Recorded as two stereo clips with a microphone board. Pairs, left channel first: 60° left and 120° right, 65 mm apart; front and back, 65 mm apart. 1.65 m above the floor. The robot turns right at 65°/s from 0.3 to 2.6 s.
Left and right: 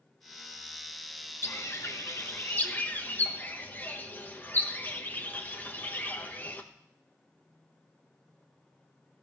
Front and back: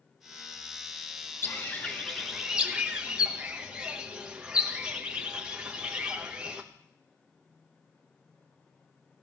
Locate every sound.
1.4 s a bird: 35° left, 1.0 m; by 6.6 s 110° left, 1.0 m